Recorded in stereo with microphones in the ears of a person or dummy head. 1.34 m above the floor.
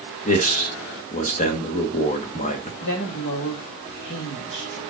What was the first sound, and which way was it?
A man speaking, 35° left (ahead or behind).